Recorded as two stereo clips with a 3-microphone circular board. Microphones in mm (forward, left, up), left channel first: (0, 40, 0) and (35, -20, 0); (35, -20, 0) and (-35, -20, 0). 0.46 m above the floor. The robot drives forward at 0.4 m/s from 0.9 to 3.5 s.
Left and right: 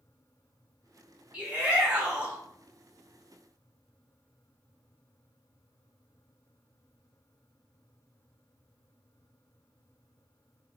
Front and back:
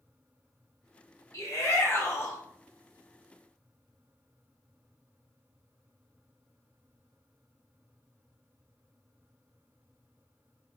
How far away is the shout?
About 1.4 m.